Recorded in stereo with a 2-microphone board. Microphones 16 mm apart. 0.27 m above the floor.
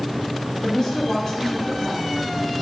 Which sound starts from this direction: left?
A woman speaking, at 0.6 s.